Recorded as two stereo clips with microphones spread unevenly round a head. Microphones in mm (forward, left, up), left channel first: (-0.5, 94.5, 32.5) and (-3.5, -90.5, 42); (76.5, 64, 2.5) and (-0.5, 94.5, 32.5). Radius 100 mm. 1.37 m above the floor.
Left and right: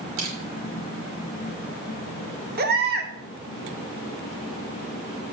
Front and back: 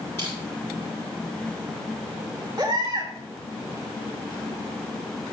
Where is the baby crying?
130° right, 1.7 m.